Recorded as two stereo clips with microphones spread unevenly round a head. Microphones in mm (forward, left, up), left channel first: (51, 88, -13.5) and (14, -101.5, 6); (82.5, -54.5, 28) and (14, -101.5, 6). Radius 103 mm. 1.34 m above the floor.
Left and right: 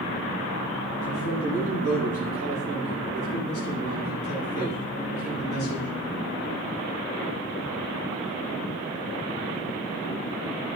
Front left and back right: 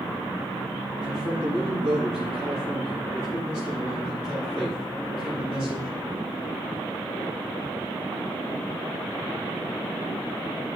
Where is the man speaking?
75° left, 9.5 m.